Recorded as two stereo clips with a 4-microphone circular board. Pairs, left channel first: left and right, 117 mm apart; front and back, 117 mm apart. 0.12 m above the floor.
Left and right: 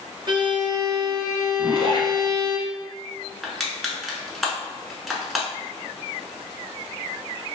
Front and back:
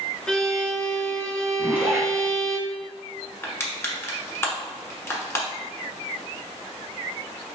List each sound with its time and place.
0.3 s a violin: 75° right, 0.6 m
1.6 s a zipper: 110° left, 1.2 m
3.4 s crushing: straight ahead, 0.9 m